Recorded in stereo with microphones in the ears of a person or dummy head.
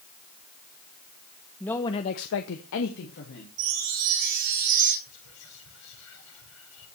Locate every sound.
1.6 s a man speaking: 5° left (ahead or behind), 1.1 m; by 3.5 s 50° left (ahead or behind), 2 m
3.6 s a chime: 80° right, 5.5 m
5.1 s whispering: 80° left, 6 m